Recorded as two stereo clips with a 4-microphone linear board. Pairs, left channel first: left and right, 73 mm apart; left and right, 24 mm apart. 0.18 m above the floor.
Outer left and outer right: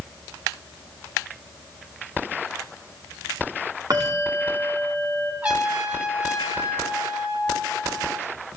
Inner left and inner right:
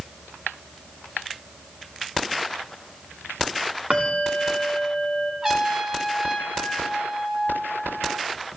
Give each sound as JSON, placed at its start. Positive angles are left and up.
{"t": 3.9, "sound": "a bell", "side_deg": -55, "distance_m": 6.5}
{"t": 5.4, "sound": "a trumpet", "side_deg": -20, "distance_m": 6.5}